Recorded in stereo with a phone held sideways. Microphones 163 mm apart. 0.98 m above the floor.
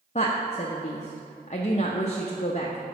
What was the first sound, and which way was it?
A woman speaking, 45° left (ahead or behind).